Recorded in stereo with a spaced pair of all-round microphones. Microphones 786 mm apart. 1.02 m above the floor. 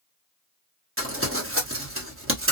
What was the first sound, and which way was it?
Crumpling, 15° right (ahead or behind).